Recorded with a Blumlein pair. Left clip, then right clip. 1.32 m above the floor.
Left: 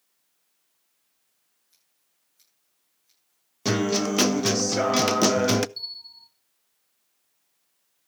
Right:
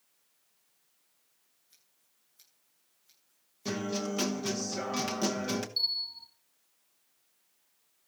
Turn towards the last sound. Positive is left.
turn(degrees=-20)